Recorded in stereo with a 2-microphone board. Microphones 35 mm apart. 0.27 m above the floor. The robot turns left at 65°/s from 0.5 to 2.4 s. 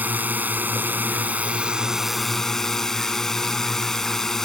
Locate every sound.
0.0 s a drone: 70° right; by 4.5 s 165° left